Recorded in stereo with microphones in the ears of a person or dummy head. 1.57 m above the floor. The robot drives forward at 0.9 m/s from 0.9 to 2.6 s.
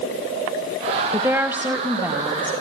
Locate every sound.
1.1 s a woman speaking: 10° right (ahead or behind), 1.1 m; by 2.6 s 5° right (ahead or behind), 2.5 m